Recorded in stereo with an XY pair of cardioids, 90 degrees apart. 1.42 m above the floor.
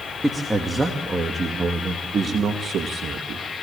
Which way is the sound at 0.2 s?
15° right.